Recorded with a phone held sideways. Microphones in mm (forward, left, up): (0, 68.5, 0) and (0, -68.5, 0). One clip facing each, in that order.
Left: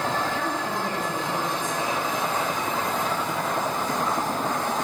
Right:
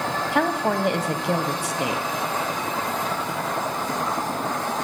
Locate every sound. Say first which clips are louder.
0.3 s a woman speaking: right 6 dB; 80° right, 0.9 m